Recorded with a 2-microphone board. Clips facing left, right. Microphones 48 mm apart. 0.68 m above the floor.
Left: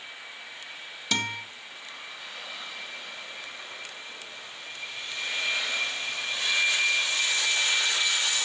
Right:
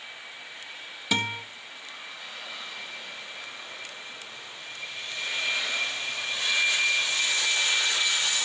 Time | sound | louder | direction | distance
1.1 | a guitar | right 2 dB | 15° right (ahead or behind) | 3 m